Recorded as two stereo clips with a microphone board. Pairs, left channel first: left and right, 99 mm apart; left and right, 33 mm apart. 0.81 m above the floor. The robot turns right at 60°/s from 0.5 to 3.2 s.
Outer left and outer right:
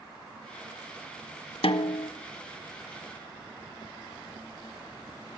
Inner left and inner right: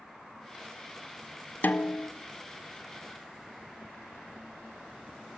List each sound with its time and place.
1.6 s a snare drum: 85° left, 1.3 m; by 2.1 s 65° left (ahead or behind), 1.3 m